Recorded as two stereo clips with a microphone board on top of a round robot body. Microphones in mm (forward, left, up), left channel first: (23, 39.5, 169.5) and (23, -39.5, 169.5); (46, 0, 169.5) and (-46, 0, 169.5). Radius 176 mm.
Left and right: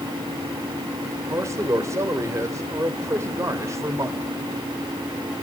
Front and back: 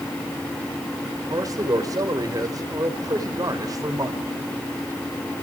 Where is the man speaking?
135° right, 2 m.